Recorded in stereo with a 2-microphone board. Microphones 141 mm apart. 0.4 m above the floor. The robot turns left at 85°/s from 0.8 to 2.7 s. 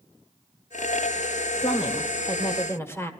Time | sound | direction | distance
1.6 | a woman speaking | 120° left | 1.1 m